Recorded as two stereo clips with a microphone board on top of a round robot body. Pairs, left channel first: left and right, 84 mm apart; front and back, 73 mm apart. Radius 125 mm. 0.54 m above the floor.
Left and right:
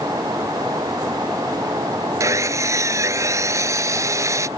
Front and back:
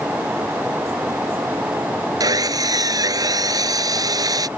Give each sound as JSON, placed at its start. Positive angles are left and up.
{"t": 2.2, "sound": "sawing", "azimuth_deg": -145}